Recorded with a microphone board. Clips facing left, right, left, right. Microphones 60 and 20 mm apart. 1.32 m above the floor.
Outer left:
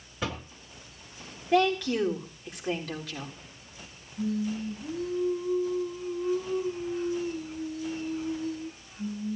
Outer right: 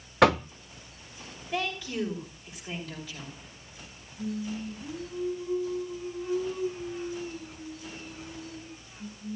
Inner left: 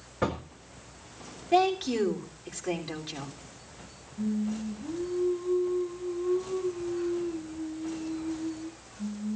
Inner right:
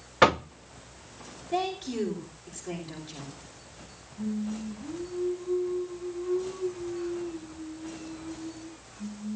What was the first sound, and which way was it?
Knocking, 70° right (ahead or behind).